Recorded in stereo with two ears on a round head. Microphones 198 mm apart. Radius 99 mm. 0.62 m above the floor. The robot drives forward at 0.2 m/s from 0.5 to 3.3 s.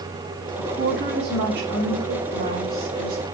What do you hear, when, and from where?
0.6 s a woman speaking: 50° right (ahead or behind), 1.3 m; by 3.2 s 40° right (ahead or behind), 1.5 m